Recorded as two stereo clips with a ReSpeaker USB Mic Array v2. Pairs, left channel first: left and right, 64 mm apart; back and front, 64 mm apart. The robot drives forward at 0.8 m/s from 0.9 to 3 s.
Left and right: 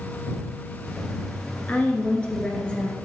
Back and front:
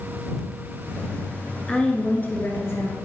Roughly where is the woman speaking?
Behind left.